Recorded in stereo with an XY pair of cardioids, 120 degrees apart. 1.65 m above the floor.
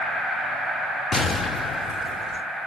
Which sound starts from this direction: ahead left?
An explosion, at 1.1 s.